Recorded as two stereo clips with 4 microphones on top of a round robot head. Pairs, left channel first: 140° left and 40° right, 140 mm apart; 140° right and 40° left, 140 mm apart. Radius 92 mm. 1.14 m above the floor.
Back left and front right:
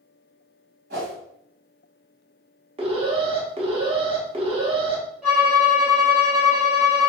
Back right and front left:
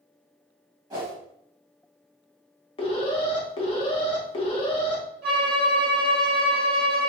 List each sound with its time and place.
0.9 s a whoosh: 25° right, 1.6 m
2.8 s an alarm: 90° right, 0.8 m
5.2 s a violin: 45° left, 1.2 m